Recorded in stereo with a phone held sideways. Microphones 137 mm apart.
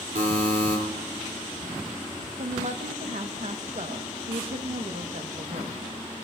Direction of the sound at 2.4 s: 65° right (ahead or behind).